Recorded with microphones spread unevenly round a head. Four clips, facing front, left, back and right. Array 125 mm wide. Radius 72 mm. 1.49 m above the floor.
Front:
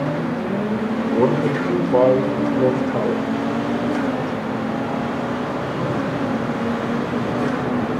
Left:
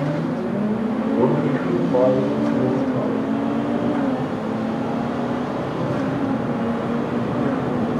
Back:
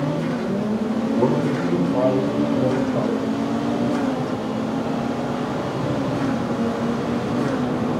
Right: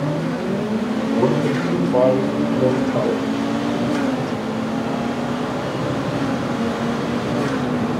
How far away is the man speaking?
About 4.5 m.